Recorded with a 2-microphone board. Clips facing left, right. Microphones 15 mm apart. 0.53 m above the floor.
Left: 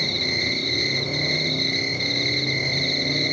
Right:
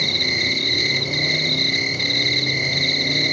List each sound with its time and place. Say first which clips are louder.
0.0 s an insect: right 4 dB; 55° right (ahead or behind), 1.4 m